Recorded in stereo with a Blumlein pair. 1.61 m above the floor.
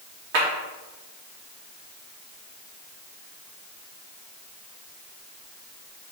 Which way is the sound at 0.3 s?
50° right.